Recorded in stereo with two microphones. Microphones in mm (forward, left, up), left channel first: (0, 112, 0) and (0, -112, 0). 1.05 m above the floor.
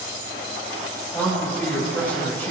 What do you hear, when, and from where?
1.1 s a man speaking: 10° left (ahead or behind), 5 m